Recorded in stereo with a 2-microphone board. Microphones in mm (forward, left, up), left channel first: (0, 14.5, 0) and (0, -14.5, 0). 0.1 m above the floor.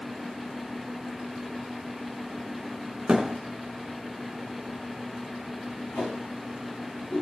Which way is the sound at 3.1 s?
30° right (ahead or behind).